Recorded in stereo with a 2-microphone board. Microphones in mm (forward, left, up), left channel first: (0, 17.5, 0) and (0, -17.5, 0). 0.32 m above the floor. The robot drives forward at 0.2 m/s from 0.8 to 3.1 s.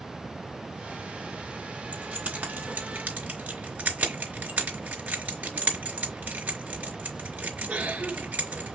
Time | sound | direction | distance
1.9 | keys jangling | 65° right (ahead or behind) | 2.5 m